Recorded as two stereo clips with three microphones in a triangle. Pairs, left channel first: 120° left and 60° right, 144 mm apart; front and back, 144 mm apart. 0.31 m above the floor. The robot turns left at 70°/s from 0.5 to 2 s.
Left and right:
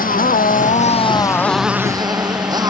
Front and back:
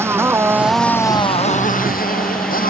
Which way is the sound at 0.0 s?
105° left.